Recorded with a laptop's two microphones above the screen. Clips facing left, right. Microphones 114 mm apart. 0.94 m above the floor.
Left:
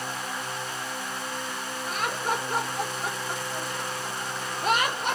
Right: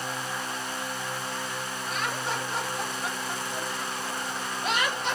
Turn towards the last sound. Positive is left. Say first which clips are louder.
# left 3 dB
turn(degrees=50)  # may be behind; listen again after turning